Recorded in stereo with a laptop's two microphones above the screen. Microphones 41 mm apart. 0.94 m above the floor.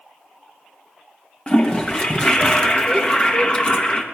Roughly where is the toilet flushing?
Left.